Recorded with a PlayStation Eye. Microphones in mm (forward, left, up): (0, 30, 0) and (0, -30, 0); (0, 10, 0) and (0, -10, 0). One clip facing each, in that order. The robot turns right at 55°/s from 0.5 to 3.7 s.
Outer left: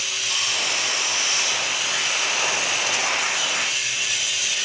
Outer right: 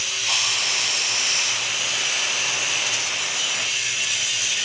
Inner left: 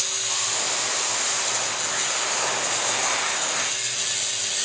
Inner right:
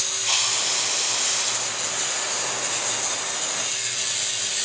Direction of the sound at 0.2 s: 90° right.